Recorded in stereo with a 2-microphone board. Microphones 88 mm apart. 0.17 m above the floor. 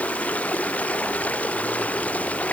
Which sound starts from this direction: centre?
Running water, at 0.0 s.